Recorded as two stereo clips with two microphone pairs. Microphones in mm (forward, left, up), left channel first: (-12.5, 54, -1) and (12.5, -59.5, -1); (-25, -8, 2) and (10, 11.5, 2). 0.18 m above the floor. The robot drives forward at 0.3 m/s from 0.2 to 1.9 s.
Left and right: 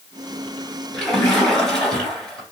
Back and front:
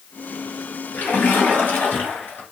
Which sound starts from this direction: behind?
A splash, at 0.9 s.